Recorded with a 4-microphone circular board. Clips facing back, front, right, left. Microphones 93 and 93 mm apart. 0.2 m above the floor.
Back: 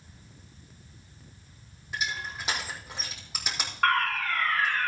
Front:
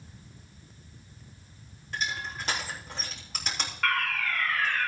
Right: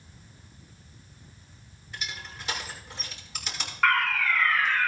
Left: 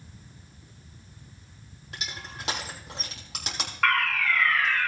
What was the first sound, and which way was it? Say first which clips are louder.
Crushing: even, even; 100° left.